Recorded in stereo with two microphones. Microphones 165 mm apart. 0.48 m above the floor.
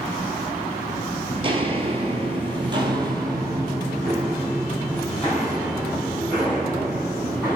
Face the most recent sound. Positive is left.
turn(degrees=-10)  # may be behind; listen again after turning